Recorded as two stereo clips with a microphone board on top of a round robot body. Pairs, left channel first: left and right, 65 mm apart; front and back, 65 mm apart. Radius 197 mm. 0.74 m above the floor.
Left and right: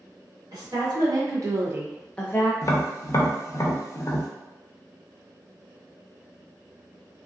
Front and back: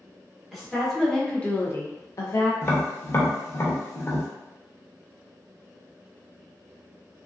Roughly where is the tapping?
Ahead left.